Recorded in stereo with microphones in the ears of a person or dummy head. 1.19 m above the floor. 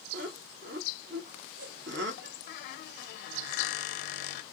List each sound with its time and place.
0.1 s laughter: 60° right (ahead or behind), 1.1 m
2.5 s a squeak: 55° left (ahead or behind), 0.6 m